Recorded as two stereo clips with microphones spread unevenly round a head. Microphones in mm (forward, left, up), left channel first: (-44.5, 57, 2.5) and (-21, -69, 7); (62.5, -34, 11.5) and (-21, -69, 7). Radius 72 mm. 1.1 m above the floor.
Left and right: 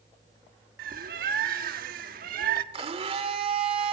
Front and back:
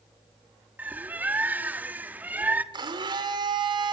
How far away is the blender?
About 2.5 m.